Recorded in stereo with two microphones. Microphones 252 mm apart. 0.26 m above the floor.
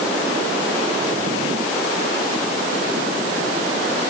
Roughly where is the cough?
I don't hear a cough.